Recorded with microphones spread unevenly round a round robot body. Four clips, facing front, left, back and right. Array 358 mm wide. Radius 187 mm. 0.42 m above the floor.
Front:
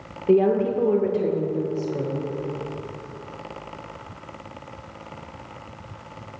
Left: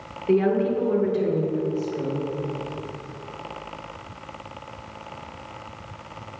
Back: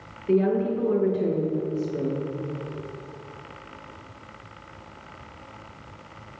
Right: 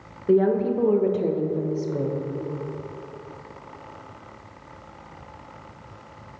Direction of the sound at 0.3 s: 10° right.